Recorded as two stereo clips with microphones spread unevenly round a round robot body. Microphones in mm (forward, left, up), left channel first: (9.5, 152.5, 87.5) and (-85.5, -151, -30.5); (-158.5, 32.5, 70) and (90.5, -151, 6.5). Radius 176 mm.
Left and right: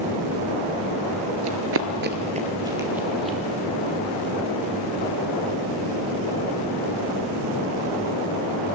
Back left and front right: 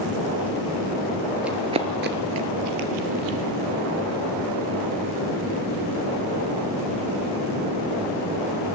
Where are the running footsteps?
145° right, 0.8 m; by 3.4 s straight ahead, 1.4 m.